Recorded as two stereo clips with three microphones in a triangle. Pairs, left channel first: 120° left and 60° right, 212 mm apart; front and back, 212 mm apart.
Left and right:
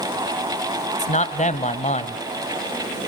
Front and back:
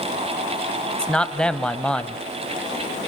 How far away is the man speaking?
About 1.3 m.